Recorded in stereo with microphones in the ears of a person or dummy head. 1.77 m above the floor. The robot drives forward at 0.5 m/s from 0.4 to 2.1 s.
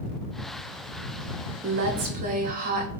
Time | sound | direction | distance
1.6 | a woman speaking | 60° right (ahead or behind) | 1.0 m